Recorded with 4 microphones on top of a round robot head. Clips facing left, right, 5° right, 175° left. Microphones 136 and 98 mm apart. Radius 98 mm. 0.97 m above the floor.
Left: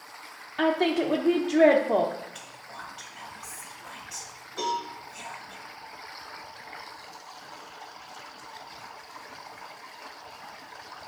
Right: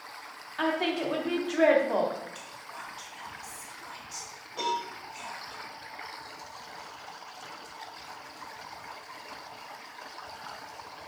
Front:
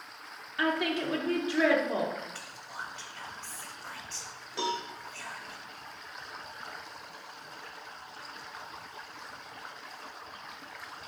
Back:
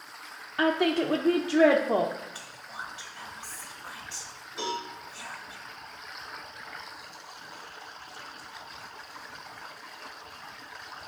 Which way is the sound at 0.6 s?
140° left.